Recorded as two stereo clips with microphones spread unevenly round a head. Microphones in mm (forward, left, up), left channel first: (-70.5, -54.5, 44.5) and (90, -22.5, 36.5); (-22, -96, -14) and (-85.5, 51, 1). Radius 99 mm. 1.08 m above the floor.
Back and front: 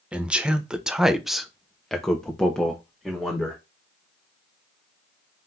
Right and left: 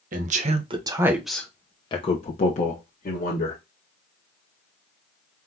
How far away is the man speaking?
About 0.9 m.